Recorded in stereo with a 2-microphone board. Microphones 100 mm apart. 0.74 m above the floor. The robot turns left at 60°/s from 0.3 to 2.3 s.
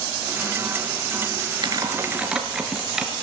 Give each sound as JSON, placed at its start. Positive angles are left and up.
{"t": 1.6, "sound": "typing on a keyboard", "side_deg": -45, "distance_m": 4.0}